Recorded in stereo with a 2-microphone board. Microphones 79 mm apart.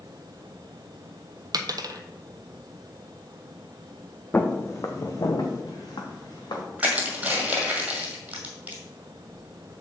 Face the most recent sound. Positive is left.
turn(degrees=-20)  # may be behind; listen again after turning